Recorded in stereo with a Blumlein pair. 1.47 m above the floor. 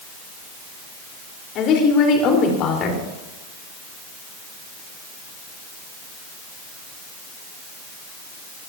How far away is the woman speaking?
About 4.5 m.